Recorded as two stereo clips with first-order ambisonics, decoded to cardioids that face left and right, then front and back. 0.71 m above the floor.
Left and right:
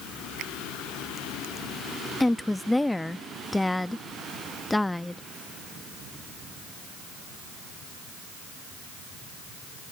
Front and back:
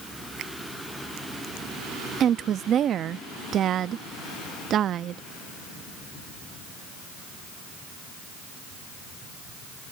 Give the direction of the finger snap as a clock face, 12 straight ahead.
4 o'clock.